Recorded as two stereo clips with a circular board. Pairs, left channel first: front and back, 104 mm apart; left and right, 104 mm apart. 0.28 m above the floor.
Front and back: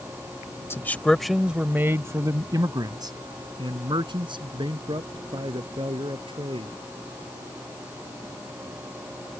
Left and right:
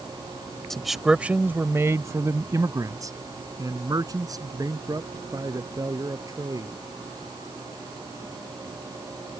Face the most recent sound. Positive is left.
turn(degrees=-145)